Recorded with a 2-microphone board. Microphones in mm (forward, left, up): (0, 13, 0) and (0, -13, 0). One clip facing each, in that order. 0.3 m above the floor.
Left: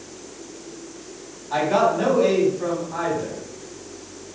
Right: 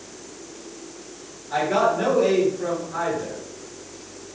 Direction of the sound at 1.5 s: 20° left (ahead or behind).